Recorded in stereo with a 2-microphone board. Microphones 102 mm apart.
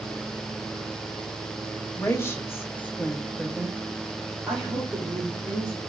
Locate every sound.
1.9 s a woman speaking: 25° left (ahead or behind), 0.8 m; by 5.8 s 15° right (ahead or behind), 1.9 m